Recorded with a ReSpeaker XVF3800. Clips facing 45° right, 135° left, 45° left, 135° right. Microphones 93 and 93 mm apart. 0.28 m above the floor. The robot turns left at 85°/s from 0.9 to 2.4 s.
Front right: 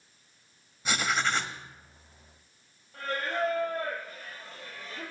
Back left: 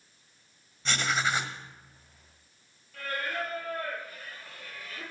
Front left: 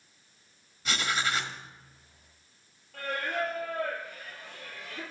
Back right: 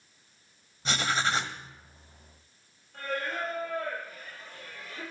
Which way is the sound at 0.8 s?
115° right.